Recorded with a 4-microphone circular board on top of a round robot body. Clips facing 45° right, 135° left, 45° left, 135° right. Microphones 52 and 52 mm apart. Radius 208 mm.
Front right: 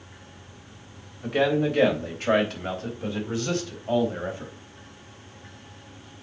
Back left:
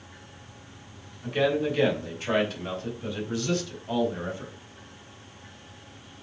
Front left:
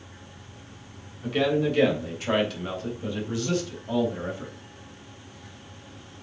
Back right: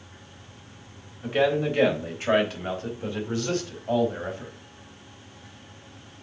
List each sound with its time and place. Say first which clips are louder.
1.2 s a man speaking: front right 2 dB, back right 1 dB; 70° right, 4 m; by 4.5 s 95° right, 5 m